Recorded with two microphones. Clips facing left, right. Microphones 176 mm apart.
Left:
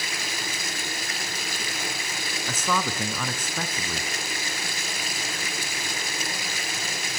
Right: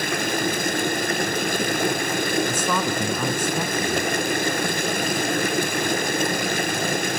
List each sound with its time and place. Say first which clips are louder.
0.0 s running water: right 12 dB; 55° right (ahead or behind), 0.8 m
2.5 s a man speaking: right 4 dB; 10° right (ahead or behind), 1.3 m